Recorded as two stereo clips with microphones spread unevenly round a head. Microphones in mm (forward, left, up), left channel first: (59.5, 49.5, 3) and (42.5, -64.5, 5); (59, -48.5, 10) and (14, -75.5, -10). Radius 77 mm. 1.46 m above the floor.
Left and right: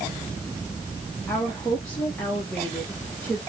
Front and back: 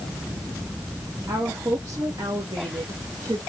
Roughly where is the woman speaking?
Behind.